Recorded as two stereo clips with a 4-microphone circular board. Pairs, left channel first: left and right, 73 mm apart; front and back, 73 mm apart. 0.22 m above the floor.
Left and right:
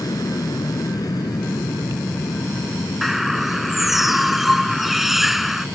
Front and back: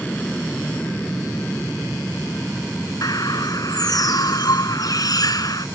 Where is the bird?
5° right.